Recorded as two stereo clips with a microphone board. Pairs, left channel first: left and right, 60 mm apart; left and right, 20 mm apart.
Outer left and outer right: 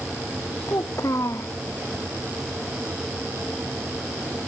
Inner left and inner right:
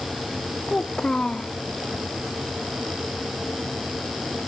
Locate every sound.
0.7 s a child speaking: 55° left (ahead or behind)